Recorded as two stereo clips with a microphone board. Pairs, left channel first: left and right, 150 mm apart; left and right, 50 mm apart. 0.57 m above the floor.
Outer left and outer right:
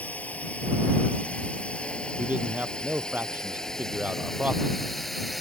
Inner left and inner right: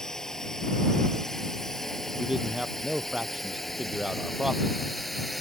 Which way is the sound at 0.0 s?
10° left (ahead or behind).